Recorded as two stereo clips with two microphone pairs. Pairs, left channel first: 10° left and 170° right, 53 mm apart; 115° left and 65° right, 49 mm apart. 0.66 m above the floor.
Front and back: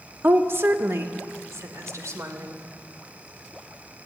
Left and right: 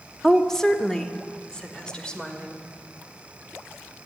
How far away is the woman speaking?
About 1.1 m.